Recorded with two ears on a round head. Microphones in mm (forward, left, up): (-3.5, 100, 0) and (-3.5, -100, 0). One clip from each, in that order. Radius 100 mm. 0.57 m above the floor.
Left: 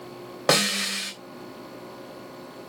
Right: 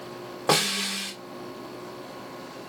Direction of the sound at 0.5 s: 25° left (ahead or behind).